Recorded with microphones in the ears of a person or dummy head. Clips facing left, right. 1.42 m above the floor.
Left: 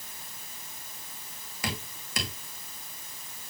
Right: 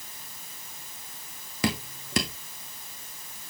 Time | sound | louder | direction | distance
1.6 | dripping | right 8 dB | 65° right (ahead or behind) | 2 m